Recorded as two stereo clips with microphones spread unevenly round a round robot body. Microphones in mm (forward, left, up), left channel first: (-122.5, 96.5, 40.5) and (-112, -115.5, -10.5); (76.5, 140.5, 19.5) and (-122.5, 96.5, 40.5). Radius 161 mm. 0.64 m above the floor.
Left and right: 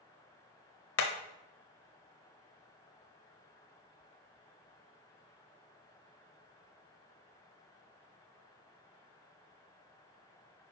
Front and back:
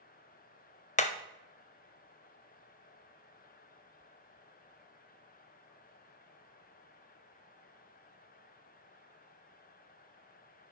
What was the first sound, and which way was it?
Hammering, 70° left.